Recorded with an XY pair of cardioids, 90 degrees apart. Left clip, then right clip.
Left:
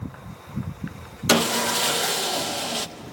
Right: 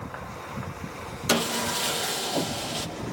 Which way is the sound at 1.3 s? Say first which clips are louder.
Left 5 dB; 40° left.